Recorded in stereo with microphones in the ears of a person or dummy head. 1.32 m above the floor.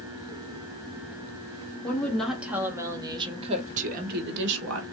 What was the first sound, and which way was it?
A woman speaking, 5° left (ahead or behind).